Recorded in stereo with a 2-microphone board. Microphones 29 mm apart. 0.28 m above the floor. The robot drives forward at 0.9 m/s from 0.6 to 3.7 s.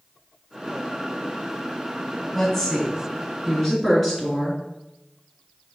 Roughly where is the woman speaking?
Centre.